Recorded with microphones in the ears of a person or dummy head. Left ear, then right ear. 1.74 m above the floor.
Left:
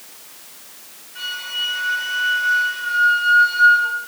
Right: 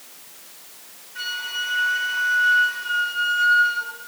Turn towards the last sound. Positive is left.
turn(degrees=-5)  # may be behind; listen again after turning